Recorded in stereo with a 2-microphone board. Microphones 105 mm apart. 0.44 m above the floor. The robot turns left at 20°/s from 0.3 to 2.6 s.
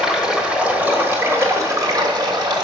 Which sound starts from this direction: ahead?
Running water, at 0.0 s.